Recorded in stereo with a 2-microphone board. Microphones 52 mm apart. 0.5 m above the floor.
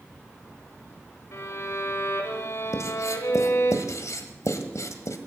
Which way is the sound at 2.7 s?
75° left (ahead or behind).